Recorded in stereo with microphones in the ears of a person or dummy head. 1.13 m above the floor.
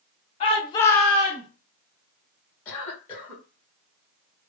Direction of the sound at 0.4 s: 40° left (ahead or behind).